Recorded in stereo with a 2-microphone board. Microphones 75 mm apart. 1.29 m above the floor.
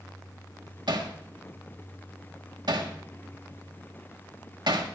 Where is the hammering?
75° right (ahead or behind), 1.4 m.